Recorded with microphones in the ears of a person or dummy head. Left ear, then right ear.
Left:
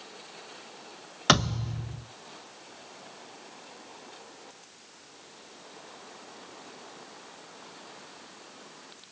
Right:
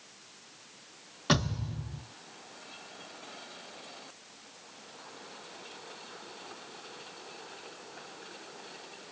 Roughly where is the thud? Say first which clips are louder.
Left 7 dB; left.